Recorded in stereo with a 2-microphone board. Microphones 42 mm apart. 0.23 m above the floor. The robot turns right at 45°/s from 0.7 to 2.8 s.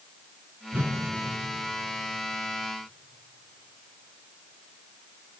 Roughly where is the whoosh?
Right.